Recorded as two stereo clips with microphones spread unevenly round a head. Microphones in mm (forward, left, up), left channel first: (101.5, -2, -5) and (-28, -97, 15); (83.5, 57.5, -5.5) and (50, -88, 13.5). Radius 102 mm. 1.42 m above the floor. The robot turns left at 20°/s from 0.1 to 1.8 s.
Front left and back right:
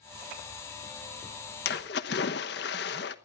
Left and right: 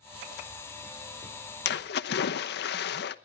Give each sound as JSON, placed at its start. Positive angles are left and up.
{"t": 1.6, "sound": "a splash", "azimuth_deg": 80, "distance_m": 1.0}